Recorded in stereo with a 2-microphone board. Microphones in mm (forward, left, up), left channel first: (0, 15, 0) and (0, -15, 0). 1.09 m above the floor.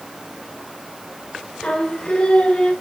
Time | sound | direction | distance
1.6 | singing | 50° left (ahead or behind) | 1.4 m